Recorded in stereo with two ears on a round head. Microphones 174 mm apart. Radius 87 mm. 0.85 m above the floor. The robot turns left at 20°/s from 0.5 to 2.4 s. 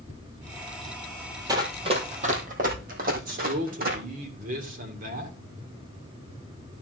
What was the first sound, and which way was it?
Running footsteps, 20° right (ahead or behind).